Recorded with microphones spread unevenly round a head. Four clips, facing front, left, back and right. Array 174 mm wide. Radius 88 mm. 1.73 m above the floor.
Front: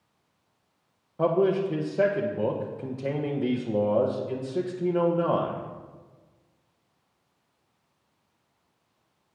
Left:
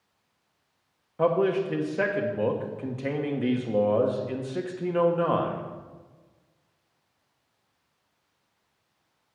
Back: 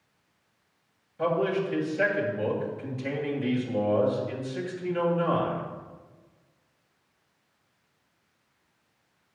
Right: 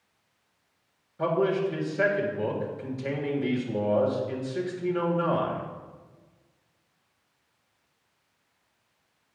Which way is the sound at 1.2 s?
40° left.